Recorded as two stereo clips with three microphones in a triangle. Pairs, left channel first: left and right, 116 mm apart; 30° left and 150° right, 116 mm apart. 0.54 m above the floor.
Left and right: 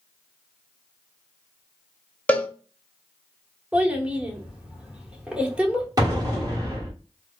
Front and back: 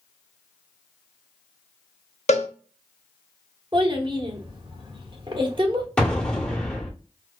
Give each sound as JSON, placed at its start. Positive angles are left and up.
{"t": 2.3, "sound": "a cowbell", "azimuth_deg": 15, "distance_m": 0.6}
{"t": 3.7, "sound": "a child speaking", "azimuth_deg": -165, "distance_m": 1.1}
{"t": 6.0, "sound": "an explosion", "azimuth_deg": -50, "distance_m": 1.3}